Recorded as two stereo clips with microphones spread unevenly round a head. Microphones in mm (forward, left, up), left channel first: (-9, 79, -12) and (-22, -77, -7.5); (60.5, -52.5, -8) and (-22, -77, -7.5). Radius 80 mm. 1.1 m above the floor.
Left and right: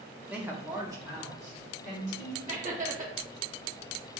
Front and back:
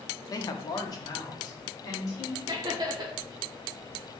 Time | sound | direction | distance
0.3 | a woman speaking | 10° right | 0.5 m
2.5 | laughter | 135° right | 1.2 m